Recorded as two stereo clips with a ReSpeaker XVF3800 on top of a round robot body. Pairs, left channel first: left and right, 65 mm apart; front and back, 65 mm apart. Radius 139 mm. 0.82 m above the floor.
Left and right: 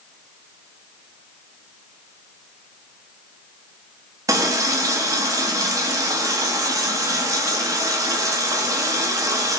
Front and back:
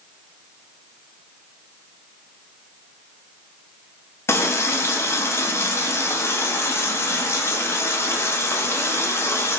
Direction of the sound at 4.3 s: 55° right.